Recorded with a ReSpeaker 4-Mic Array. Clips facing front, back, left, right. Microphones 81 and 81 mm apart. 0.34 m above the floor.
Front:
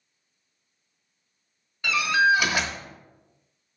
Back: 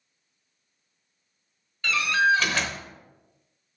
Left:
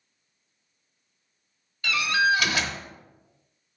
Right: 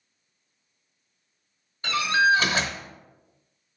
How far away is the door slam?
About 0.9 m.